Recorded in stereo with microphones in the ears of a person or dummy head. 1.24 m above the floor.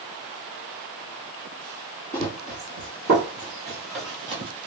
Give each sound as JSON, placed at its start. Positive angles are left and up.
{"t": 2.1, "sound": "running footsteps", "side_deg": -20, "distance_m": 1.4}